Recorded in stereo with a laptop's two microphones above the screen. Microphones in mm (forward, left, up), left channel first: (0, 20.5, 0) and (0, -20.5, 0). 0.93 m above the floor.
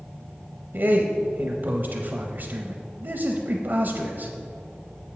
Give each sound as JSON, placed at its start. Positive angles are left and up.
{"t": 0.7, "sound": "a man speaking", "side_deg": -55, "distance_m": 0.6}